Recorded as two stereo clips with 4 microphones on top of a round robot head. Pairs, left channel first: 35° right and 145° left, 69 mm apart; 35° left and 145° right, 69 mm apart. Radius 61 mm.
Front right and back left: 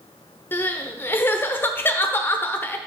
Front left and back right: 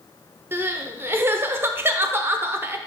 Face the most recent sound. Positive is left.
turn(degrees=-90)